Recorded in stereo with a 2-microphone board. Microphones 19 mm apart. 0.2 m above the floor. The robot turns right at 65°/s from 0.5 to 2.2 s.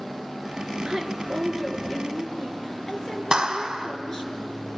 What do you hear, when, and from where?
0.8 s a woman speaking: 55° right, 2.5 m; by 4.3 s 30° left, 2.5 m
3.3 s a clap: 40° right (ahead or behind), 1.4 m